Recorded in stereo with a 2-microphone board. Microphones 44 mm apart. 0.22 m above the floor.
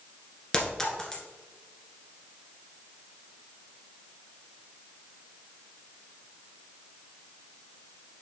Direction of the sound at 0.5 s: 10° left (ahead or behind).